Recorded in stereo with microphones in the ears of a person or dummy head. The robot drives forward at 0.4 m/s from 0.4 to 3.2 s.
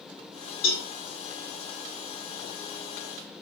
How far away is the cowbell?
About 5 m.